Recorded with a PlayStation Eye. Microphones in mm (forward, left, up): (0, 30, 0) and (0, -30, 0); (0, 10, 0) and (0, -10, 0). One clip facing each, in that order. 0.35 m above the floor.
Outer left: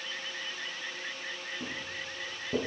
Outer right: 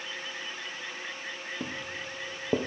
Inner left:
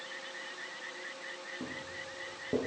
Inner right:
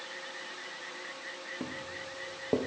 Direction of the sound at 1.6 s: 75° right (ahead or behind).